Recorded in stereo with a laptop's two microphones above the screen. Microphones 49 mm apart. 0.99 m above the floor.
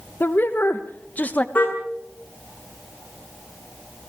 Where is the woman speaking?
45° left (ahead or behind), 1.1 m; by 1.4 s 30° left (ahead or behind), 1.1 m.